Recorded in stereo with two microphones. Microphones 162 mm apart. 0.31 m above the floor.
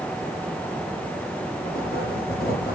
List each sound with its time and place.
1.6 s writing: 60° left (ahead or behind), 7 m